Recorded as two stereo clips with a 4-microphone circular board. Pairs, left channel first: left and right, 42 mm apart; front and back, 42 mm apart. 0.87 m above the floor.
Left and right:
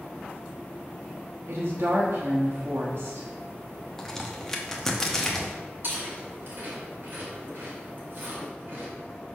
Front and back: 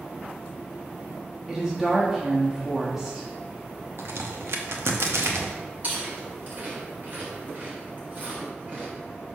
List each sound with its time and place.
1.5 s a woman speaking: 100° right, 1.3 m
4.0 s a crack: 170° left, 0.8 m
5.8 s chewing: 130° right, 2.5 m